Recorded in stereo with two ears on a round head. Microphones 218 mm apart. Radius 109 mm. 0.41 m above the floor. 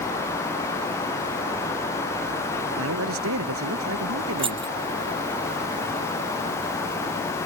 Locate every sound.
2.8 s a man speaking: 65° right (ahead or behind)
4.4 s keys jangling: 25° right (ahead or behind)